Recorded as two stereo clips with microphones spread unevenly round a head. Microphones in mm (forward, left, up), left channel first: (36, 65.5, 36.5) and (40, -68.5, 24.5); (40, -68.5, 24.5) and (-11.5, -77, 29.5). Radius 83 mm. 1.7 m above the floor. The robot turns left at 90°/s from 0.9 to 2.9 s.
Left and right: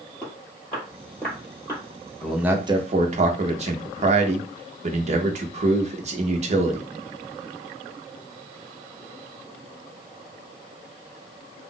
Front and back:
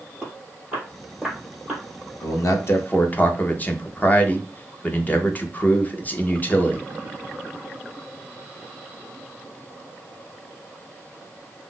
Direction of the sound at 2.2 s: 10° left.